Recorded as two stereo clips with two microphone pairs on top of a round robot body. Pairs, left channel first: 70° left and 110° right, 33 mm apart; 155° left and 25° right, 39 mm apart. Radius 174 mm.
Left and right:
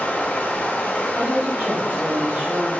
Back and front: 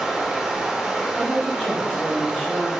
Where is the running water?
55° left, 0.7 m.